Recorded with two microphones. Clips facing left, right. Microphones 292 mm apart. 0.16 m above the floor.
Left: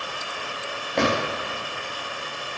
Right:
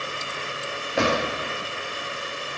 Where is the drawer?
5° right (ahead or behind), 4.5 m.